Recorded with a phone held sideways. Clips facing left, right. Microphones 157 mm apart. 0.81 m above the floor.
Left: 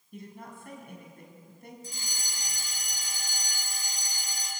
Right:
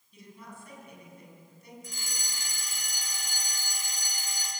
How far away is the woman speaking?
About 6.5 m.